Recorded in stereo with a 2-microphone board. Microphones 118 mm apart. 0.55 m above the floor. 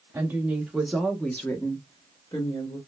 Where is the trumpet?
No trumpet in this recording.